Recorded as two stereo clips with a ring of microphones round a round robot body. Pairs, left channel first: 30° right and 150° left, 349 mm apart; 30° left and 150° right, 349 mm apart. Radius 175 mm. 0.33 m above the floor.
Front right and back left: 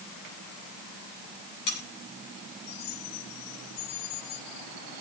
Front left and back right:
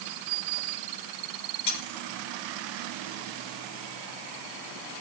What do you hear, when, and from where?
1.7 s cutlery clinking: 15° left, 6 m